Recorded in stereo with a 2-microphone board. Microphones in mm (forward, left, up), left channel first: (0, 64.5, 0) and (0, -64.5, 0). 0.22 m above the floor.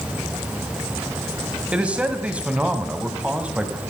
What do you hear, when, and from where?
1.7 s a man speaking: 10° right (ahead or behind), 1.6 m